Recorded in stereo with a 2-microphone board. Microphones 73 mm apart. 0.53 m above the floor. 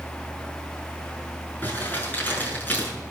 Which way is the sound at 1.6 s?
25° left (ahead or behind).